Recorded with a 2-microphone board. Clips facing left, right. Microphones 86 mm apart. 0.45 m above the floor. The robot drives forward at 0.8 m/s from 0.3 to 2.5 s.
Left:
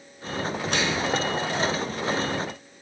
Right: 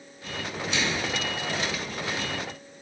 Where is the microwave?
60° left (ahead or behind), 1.9 m; by 1.1 s 55° left (ahead or behind), 2 m.